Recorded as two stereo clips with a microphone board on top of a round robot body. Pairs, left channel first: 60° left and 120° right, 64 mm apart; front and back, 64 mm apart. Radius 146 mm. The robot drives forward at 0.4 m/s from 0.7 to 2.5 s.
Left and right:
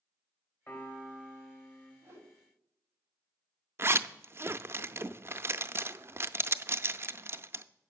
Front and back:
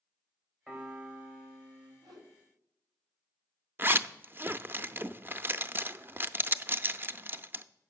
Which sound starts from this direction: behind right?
A zipper, at 3.8 s.